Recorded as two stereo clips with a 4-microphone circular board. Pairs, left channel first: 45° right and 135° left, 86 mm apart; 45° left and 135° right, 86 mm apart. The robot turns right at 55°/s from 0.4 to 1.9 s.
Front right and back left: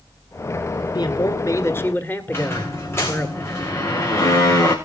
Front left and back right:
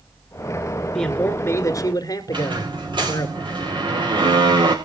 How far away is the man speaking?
About 1.7 m.